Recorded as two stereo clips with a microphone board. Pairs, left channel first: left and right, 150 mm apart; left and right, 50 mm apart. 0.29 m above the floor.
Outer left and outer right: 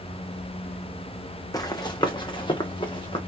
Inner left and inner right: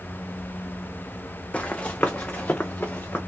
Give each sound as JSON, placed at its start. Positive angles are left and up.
{"t": 1.5, "sound": "running footsteps", "side_deg": 25, "distance_m": 0.8}